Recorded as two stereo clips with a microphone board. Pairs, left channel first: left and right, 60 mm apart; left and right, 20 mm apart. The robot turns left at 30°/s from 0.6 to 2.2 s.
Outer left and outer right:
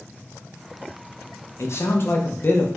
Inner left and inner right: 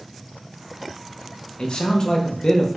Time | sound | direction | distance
1.6 | a man speaking | 55° left (ahead or behind) | 0.6 m